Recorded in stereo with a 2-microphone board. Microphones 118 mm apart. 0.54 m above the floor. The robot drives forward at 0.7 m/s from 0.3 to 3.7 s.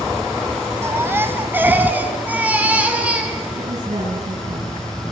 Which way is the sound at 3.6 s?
80° right.